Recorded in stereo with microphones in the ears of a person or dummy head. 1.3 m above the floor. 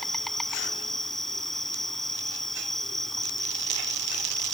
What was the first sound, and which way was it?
An insect, centre (ahead or behind).